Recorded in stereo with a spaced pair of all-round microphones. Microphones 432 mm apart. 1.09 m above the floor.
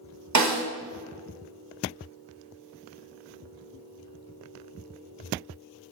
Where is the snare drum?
45° right (ahead or behind), 0.6 m.